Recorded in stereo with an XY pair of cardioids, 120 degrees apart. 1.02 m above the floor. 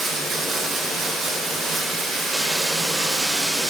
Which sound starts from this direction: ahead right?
Running water, at 0.0 s.